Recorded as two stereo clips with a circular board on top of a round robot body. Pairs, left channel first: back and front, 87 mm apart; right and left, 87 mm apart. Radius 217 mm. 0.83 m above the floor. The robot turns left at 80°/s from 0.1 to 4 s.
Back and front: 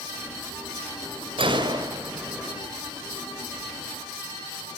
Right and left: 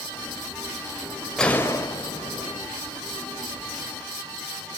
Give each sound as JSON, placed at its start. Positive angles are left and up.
{"t": 1.4, "sound": "a gunshot", "azimuth_deg": -5, "distance_m": 4.5}